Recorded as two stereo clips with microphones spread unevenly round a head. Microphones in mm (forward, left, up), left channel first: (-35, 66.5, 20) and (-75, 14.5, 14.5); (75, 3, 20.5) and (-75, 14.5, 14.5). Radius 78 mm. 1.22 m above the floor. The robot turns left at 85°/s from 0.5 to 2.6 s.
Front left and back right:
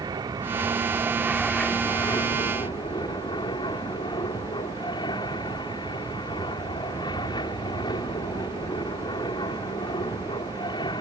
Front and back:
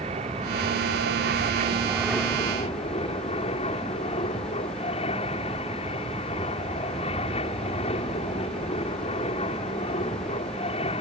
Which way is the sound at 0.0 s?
135° right.